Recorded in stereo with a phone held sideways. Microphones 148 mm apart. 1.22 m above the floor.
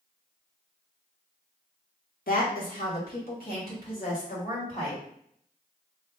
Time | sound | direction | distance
2.3 | a woman speaking | 75° left (ahead or behind) | 1.2 m